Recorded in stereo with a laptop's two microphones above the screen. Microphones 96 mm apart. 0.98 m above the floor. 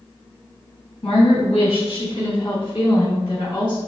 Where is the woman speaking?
70° left (ahead or behind), 1.3 m; by 3.8 s 55° left (ahead or behind), 3 m.